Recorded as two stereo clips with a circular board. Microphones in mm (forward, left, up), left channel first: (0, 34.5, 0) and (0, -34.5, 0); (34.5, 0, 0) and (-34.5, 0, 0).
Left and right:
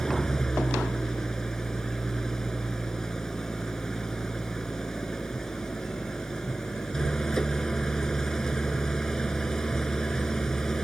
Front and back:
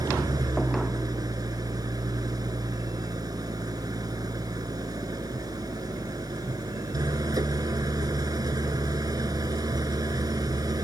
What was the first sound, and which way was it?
An engine running, 170° left.